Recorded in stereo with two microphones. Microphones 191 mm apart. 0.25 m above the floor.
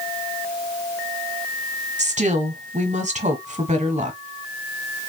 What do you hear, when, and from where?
2.0 s a woman speaking: 40° right (ahead or behind), 1.2 m